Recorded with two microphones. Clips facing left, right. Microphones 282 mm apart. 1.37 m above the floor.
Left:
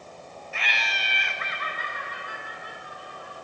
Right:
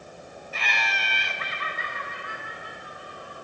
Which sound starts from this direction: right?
Laughter, at 0.5 s.